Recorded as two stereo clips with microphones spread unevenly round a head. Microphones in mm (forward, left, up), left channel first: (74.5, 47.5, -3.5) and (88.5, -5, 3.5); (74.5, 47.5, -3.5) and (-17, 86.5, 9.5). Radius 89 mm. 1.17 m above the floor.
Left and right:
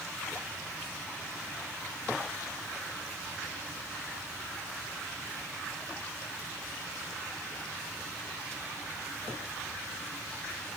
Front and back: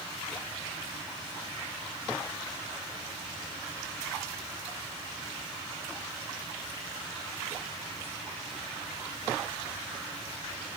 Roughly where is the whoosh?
No whoosh in this recording.